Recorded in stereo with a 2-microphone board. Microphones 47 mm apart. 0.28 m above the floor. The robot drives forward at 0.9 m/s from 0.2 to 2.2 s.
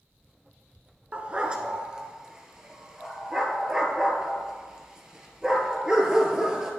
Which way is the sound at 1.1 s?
30° right (ahead or behind).